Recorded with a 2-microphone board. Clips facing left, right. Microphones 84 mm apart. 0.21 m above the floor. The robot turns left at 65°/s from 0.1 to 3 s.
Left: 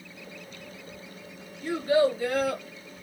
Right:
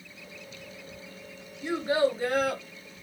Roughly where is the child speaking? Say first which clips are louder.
Left 2 dB; ahead.